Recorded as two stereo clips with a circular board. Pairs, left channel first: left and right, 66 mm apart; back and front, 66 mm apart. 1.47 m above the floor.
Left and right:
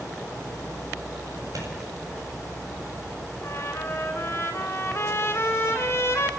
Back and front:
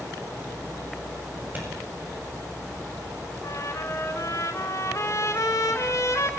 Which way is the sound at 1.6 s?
60° right.